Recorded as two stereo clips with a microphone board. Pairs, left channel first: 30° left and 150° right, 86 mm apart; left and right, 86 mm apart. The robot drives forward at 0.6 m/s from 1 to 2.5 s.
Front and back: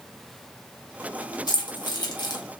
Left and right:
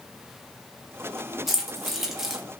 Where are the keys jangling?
5° right, 1.7 m.